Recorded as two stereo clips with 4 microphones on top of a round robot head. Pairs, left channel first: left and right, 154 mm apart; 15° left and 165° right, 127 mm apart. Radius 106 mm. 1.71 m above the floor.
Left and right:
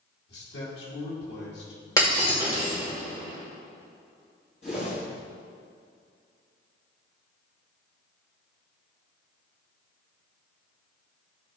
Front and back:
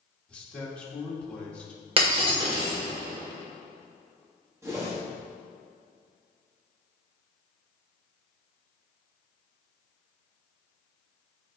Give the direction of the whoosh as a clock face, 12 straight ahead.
7 o'clock.